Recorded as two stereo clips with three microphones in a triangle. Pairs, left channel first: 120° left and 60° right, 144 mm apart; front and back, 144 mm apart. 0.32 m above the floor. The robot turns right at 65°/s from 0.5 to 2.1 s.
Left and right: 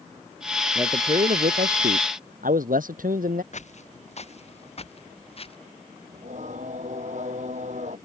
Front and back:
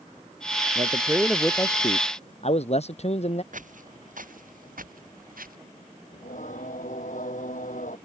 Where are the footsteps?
155° left; by 5.6 s 165° left.